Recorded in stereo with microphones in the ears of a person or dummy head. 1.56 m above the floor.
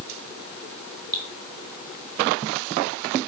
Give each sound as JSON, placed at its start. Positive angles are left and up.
{"t": 1.1, "sound": "dripping", "side_deg": -25, "distance_m": 3.5}